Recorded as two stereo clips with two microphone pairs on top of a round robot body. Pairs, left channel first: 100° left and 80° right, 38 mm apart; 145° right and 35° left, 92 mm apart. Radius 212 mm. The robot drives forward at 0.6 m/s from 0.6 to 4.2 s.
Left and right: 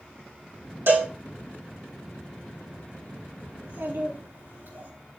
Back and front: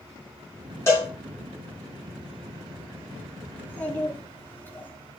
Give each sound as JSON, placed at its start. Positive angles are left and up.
{"t": 0.9, "sound": "a cowbell", "azimuth_deg": -85, "distance_m": 7.0}
{"t": 3.5, "sound": "a child speaking", "azimuth_deg": -75, "distance_m": 5.5}